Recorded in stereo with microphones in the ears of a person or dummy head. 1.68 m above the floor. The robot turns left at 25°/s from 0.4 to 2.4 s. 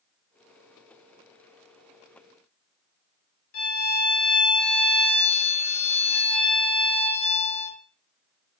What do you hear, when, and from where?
3.5 s a violin: 80° left, 1.8 m